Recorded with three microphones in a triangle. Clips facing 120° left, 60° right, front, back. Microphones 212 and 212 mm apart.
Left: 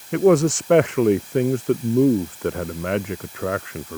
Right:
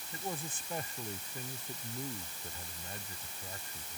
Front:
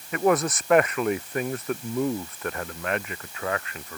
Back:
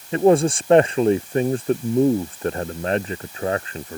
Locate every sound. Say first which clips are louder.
0.1 s a man speaking: left 27 dB, back 7 dB; 120° left